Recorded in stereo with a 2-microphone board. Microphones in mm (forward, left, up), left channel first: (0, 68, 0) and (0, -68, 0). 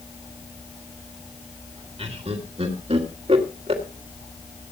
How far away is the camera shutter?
I don't hear a camera shutter.